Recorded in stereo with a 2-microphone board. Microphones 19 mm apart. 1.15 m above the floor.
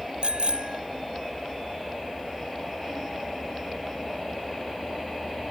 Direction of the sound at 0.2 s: 70° right (ahead or behind).